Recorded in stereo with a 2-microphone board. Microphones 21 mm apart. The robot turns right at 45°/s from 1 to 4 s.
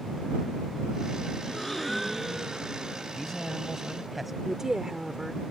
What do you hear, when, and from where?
1.4 s a gasp: 155° left; by 3.0 s 130° right
3.1 s a man speaking: 155° left; by 4.3 s 165° right
4.4 s a woman speaking: 30° right (ahead or behind)